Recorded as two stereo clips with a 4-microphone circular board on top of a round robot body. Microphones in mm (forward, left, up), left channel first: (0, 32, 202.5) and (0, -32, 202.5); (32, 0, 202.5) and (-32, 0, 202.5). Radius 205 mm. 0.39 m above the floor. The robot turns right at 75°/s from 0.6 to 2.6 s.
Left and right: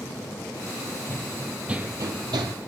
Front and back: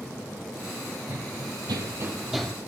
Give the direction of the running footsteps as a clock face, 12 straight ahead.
7 o'clock.